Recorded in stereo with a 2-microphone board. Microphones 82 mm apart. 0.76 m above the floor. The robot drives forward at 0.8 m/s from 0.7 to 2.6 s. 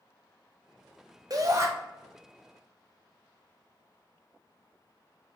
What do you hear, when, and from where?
1.3 s a shout: 45° right (ahead or behind), 0.7 m; by 1.7 s 35° right (ahead or behind), 0.9 m